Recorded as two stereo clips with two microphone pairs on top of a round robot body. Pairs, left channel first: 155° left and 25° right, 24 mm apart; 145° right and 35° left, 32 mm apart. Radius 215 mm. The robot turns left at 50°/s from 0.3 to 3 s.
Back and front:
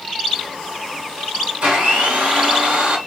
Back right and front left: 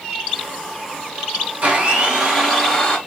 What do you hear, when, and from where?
1.6 s a blender: 15° right, 2.5 m; by 3.0 s 80° right, 2.5 m